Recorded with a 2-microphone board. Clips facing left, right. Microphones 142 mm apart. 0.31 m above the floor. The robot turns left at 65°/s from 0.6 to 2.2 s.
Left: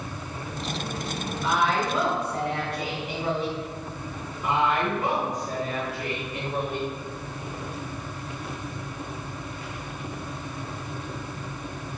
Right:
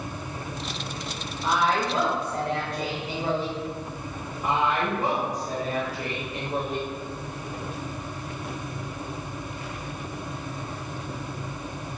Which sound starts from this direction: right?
A woman speaking, at 4.4 s.